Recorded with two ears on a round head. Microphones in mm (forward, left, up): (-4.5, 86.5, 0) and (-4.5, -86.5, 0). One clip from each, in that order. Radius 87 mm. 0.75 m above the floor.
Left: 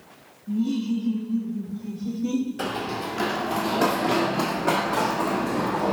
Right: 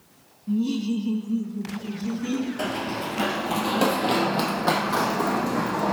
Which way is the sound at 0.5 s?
30° right (ahead or behind).